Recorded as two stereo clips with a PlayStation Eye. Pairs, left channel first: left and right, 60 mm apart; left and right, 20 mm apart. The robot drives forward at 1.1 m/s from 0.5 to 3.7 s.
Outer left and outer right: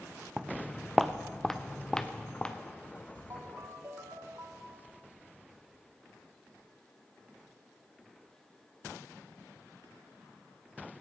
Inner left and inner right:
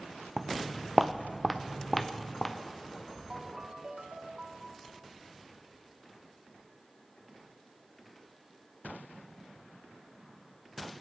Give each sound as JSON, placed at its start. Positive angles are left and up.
{"t": 0.4, "sound": "footsteps", "side_deg": -15, "distance_m": 0.5}
{"t": 3.3, "sound": "a ringtone", "side_deg": -60, "distance_m": 1.5}